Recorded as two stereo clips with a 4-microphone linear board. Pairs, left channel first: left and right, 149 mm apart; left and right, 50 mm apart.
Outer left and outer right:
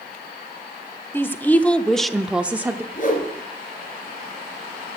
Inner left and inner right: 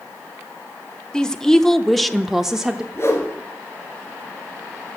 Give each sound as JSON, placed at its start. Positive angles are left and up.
{"t": 1.1, "sound": "a woman speaking", "side_deg": 15, "distance_m": 0.9}
{"t": 2.9, "sound": "a whoosh", "side_deg": 55, "distance_m": 3.0}